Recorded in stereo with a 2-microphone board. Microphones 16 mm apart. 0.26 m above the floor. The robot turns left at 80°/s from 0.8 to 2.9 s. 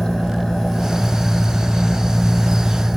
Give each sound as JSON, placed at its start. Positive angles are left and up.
{"t": 0.0, "sound": "an engine running", "azimuth_deg": 135, "distance_m": 7.0}